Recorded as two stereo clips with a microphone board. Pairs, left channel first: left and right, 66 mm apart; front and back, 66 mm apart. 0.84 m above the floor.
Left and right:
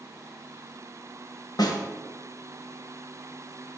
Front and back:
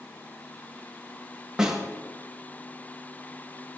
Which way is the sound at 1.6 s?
100° left.